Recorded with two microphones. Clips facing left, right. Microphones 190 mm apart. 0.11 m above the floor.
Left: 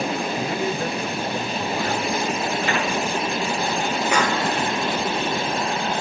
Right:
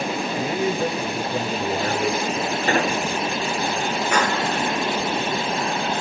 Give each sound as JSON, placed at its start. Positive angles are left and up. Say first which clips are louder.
{"t": 0.4, "sound": "a man speaking", "louder": "right 2 dB", "side_deg": -10, "distance_m": 1.8}
{"t": 2.7, "sound": "an explosion", "louder": "right 7 dB", "side_deg": -40, "distance_m": 0.5}
{"t": 4.1, "sound": "a clap", "louder": "even", "side_deg": 10, "distance_m": 5.0}